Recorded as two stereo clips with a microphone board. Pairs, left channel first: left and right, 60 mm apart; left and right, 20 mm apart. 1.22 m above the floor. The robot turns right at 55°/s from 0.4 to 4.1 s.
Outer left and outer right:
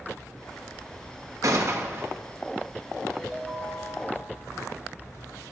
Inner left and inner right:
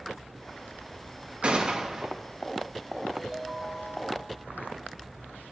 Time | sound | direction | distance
1.4 | a gunshot | 75° right | 1.3 m
3.1 | a ringtone | 175° right | 3.5 m